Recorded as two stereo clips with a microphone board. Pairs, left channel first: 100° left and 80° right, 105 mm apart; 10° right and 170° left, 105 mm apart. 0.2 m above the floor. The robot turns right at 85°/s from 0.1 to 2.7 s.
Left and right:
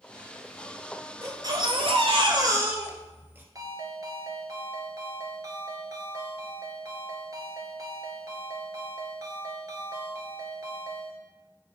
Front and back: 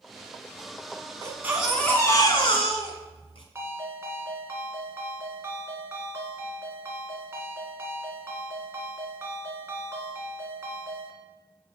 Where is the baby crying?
140° right, 1.9 m; by 3.5 s 15° right, 1.9 m.